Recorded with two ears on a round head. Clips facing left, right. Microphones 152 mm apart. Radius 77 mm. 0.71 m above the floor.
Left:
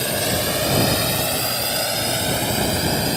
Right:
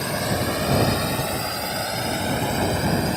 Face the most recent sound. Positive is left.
turn(degrees=35)  # may be behind; listen again after turning